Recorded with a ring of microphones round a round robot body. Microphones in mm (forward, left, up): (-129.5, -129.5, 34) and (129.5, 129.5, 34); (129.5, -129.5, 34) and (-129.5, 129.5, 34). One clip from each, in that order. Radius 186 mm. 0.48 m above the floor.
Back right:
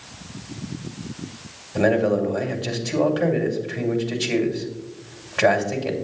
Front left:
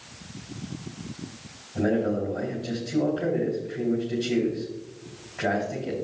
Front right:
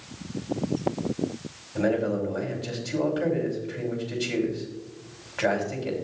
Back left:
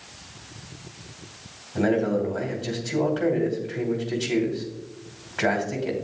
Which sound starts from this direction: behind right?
A man speaking, at 1.8 s.